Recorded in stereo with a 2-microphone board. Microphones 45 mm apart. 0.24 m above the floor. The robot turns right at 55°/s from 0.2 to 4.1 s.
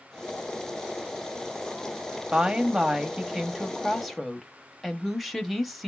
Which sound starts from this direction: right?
A woman speaking, at 2.3 s.